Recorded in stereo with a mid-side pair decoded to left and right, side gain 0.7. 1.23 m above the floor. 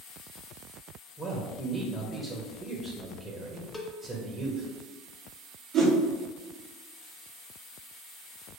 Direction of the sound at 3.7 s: 5° left.